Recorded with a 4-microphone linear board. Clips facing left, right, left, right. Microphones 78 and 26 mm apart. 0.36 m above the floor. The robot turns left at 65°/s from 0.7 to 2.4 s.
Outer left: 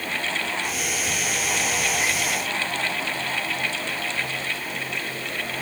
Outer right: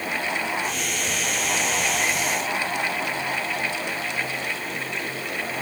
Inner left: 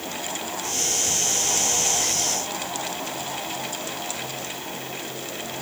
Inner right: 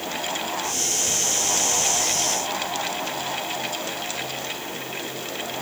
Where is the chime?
No chime in this recording.